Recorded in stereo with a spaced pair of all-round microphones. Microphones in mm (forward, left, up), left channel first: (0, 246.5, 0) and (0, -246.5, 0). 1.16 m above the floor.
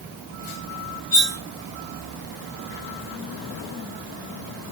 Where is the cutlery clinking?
75° left (ahead or behind), 3.5 m.